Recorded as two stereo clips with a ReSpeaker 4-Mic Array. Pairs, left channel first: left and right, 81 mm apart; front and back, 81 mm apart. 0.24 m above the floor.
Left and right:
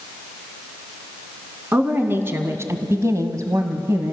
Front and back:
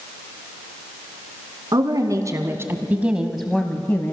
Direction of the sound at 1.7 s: 155° right.